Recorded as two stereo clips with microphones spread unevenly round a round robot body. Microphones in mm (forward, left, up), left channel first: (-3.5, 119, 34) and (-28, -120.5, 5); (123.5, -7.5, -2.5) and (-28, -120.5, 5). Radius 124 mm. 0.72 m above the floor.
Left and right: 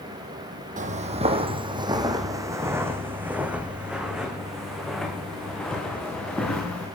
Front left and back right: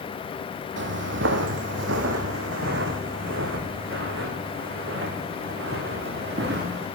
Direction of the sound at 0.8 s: 155° right.